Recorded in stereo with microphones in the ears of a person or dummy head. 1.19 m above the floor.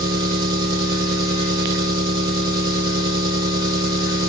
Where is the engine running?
25° right (ahead or behind), 1.0 m.